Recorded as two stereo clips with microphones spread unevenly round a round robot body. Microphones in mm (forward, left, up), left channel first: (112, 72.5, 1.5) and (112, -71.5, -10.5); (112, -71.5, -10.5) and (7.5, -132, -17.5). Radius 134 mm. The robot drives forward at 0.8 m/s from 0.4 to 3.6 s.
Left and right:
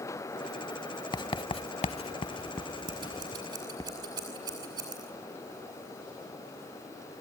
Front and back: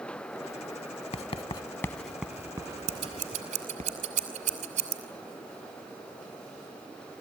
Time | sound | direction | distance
1.1 | writing | 40° left | 0.9 m
2.9 | scissors | 155° right | 2 m